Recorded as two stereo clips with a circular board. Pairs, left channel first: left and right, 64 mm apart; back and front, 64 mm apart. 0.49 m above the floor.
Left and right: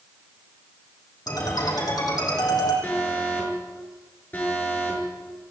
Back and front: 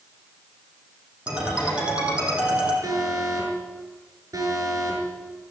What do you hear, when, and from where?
1.3 s a ringtone: 70° left, 7.5 m
2.8 s an alarm: 30° left, 7.5 m